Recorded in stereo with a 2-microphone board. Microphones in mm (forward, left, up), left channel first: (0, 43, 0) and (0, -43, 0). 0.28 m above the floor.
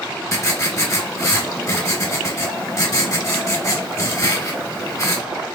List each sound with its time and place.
0.3 s writing: 40° left (ahead or behind), 1.3 m